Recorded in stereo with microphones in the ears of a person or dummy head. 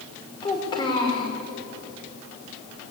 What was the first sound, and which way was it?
A child speaking, 25° left (ahead or behind).